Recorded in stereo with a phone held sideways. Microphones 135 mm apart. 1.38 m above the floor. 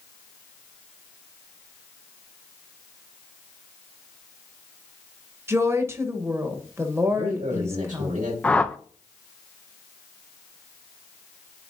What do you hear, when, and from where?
5.5 s a woman speaking: 20° right (ahead or behind), 1.2 m
7.1 s a man speaking: 85° right, 5 m
8.4 s a whoosh: 10° left (ahead or behind), 0.5 m